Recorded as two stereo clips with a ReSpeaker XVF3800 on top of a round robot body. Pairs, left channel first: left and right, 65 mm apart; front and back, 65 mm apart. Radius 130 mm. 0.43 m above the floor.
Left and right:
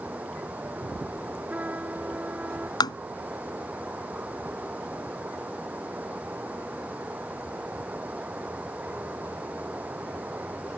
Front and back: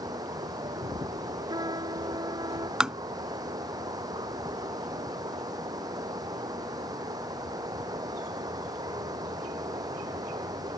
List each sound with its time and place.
0.0 s running water: 160° right
1.5 s a trumpet: 160° right
2.8 s tapping: 100° left